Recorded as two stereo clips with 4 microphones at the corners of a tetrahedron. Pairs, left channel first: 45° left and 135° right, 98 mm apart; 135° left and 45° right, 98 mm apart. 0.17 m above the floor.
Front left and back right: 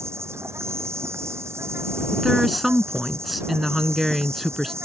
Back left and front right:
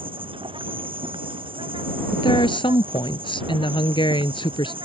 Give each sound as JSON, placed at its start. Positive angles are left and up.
{"t": 0.0, "sound": "an insect", "azimuth_deg": -70}
{"t": 2.1, "sound": "a woman speaking", "azimuth_deg": 135}